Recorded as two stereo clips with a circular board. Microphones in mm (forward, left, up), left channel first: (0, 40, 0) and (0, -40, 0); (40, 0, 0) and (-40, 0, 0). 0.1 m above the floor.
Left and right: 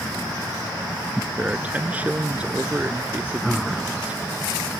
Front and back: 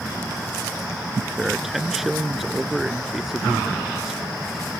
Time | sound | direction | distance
1.4 | a man speaking | 100° right | ?